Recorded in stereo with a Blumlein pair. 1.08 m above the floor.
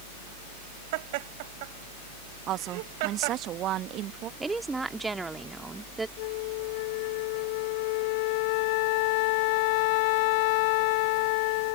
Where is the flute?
45° left.